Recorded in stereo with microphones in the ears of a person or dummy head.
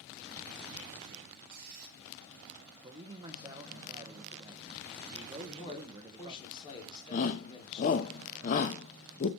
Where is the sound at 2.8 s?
20° right (ahead or behind), 1.1 m.